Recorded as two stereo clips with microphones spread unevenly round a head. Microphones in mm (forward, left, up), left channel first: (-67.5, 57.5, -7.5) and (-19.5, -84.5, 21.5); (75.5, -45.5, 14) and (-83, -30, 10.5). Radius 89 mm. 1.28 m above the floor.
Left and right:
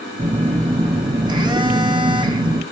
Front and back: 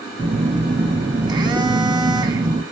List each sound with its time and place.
0.2 s a phone buzzing: 125° right, 1.1 m